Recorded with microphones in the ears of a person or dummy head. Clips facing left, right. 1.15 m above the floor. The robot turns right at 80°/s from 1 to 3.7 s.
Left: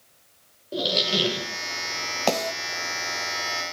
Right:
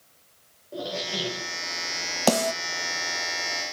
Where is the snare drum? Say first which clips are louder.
Right 3 dB; 25° right (ahead or behind), 1.1 m; by 2.5 s 45° right (ahead or behind), 1.1 m.